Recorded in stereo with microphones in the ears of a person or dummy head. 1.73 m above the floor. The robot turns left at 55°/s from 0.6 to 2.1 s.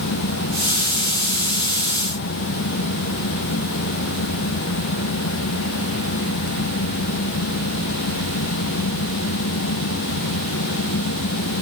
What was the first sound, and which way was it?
Only background noise.